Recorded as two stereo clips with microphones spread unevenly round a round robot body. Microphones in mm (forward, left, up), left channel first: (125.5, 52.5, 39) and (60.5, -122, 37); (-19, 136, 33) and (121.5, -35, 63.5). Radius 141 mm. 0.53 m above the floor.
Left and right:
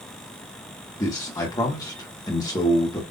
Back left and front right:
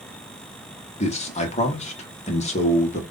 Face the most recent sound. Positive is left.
turn(degrees=130)